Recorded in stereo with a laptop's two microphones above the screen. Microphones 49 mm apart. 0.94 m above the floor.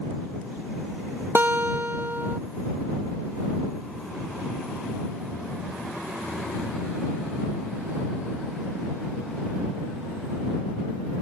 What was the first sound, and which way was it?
A guitar, 45° right (ahead or behind).